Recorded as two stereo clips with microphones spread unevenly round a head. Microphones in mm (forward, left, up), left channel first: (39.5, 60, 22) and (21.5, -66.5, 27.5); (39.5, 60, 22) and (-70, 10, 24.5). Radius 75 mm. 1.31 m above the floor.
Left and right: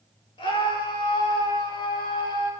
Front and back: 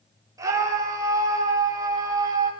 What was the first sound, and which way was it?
A scream, 140° left.